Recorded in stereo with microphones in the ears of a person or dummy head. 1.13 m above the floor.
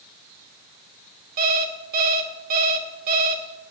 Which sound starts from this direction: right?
An alarm clock, at 1.4 s.